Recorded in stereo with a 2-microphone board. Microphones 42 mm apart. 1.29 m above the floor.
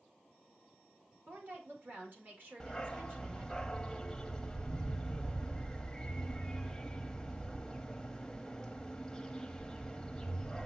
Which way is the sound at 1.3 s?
50° right (ahead or behind).